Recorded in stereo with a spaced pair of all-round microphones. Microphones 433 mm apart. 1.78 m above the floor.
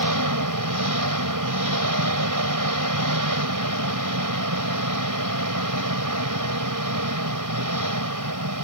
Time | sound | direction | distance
0.0 | an engine running | 45° right (ahead or behind) | ?